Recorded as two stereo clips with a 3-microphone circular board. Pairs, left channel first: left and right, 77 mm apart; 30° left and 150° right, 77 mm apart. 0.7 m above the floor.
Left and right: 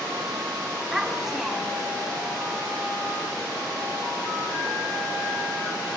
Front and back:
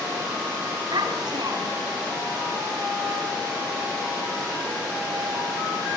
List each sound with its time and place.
0.9 s a child speaking: 175° right, 4 m